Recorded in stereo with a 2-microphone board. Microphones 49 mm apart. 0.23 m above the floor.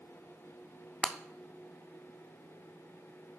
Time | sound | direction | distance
1.0 | breaking glass | 20° right (ahead or behind) | 0.5 m